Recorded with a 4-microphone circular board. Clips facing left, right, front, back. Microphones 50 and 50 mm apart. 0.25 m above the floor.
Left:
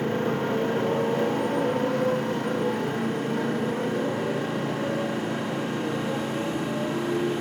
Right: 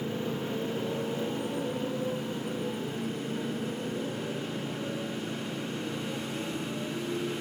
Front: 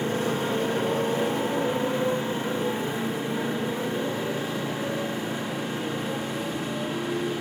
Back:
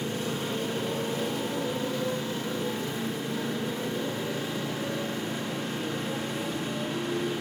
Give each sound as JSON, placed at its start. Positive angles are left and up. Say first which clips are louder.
{"t": 0.0, "sound": "a motorcycle", "louder": "left 8 dB, front 5 dB", "azimuth_deg": 60}